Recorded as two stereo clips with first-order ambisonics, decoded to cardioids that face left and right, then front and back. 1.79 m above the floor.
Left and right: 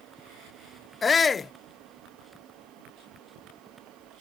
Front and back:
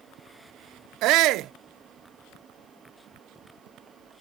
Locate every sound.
1.0 s a shout: 155° left